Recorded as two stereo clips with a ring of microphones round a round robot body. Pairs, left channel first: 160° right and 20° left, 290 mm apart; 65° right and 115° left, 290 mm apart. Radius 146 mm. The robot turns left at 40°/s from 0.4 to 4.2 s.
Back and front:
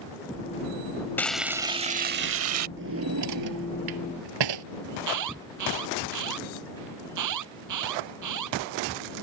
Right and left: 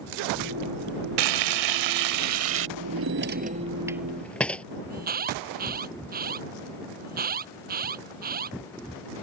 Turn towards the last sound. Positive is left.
turn(degrees=50)